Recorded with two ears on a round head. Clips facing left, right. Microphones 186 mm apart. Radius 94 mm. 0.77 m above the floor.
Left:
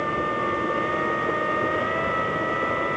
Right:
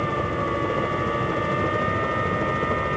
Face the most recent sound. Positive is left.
turn(degrees=-65)  # may be behind; listen again after turning